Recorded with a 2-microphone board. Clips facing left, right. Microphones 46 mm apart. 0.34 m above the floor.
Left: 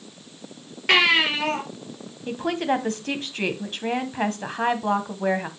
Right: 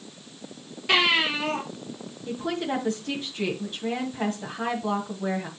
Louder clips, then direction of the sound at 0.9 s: Left 3 dB; 60° left (ahead or behind).